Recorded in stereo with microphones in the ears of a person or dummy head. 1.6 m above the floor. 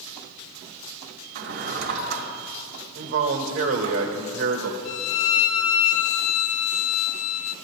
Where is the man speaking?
90° right, 1.8 m.